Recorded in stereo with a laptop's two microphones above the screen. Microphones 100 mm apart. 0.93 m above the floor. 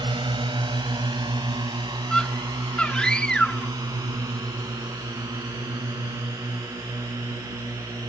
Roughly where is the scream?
Centre.